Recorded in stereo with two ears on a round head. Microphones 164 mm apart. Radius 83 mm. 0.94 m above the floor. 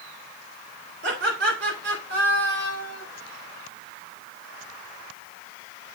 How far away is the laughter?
About 3 m.